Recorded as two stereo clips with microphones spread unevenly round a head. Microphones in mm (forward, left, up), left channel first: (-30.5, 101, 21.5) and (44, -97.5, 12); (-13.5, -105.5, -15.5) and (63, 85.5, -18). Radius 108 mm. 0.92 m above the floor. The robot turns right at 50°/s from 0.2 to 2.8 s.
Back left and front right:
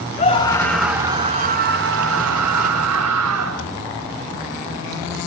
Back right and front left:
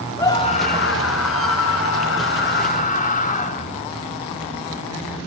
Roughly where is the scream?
Behind.